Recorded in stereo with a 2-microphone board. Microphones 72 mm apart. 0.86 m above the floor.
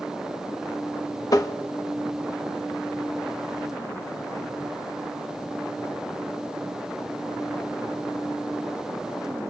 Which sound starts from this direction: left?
Tapping, at 1.3 s.